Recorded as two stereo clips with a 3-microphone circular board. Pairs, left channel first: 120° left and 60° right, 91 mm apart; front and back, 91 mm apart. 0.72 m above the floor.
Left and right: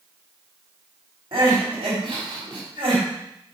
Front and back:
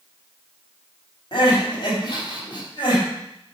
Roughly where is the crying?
Ahead right.